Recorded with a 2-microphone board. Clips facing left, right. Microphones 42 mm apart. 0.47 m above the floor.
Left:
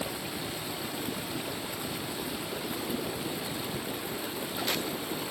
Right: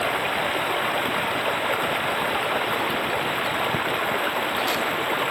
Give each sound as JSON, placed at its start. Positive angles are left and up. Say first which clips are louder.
{"t": 0.0, "sound": "running water", "louder": "right 12 dB", "side_deg": -55}